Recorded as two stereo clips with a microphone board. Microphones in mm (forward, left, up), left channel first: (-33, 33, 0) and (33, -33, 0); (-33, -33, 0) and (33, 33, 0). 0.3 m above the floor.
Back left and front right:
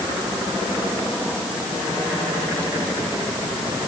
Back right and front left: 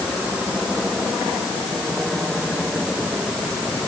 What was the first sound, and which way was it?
Only background noise.